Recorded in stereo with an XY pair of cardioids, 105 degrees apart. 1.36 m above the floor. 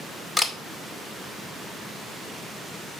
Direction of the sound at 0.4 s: 5° left.